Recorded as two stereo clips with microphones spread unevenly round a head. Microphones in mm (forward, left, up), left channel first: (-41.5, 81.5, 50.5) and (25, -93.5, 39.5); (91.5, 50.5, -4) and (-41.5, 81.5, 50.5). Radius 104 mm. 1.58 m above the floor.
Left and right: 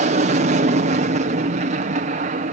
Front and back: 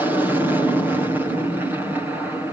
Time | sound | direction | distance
0.0 | an aircraft | 95° right | ?